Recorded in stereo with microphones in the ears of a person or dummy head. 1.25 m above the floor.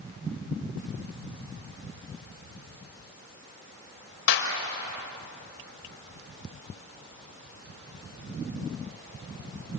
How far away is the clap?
About 5 m.